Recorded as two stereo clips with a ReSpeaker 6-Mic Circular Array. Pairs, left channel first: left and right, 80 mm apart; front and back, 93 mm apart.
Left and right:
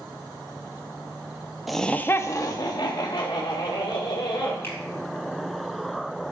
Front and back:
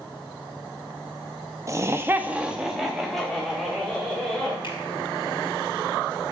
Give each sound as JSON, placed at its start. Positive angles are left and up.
{"t": 1.7, "sound": "laughter", "azimuth_deg": 180, "distance_m": 0.6}
{"t": 4.6, "sound": "a finger snap", "azimuth_deg": 30, "distance_m": 4.0}